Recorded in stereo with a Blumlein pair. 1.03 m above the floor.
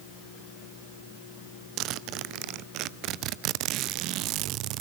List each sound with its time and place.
1.8 s a zipper: 40° right, 0.6 m